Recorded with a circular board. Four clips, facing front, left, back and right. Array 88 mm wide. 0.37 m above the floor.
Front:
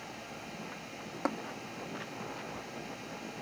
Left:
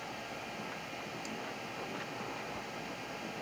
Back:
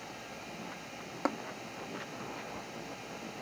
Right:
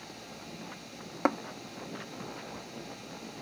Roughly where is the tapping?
Right.